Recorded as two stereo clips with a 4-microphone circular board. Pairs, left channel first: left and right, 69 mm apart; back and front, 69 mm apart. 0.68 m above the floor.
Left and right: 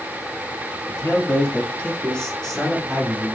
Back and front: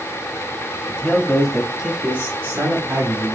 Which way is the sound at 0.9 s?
115° left.